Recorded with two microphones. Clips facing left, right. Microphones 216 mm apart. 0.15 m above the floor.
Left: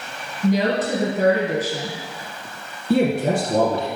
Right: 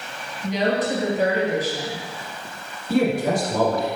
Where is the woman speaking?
45° left (ahead or behind), 3.5 m.